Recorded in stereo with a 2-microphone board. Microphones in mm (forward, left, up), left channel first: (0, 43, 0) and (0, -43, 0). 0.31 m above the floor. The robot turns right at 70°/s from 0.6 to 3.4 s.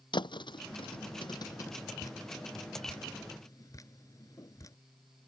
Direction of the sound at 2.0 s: 40° left (ahead or behind).